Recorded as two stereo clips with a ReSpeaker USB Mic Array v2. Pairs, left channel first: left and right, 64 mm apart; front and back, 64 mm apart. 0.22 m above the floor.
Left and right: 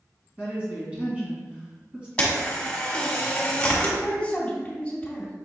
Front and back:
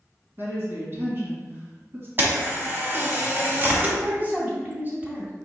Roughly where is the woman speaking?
Behind right.